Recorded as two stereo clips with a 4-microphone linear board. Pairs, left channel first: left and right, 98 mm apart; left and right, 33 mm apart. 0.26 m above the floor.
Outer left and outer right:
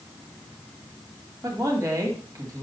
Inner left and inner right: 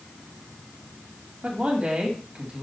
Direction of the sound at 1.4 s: 40° right (ahead or behind).